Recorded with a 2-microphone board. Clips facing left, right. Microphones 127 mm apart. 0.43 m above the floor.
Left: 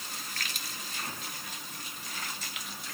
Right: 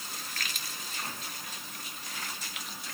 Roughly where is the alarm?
No alarm in this recording.